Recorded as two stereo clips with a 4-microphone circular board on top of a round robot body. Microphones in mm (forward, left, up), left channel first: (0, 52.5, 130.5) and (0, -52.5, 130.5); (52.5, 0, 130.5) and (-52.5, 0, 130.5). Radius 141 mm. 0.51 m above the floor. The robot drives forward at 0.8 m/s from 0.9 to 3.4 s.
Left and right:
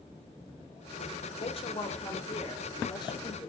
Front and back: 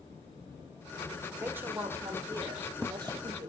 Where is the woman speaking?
105° left, 2.5 m; by 3.5 s 135° left, 3.5 m.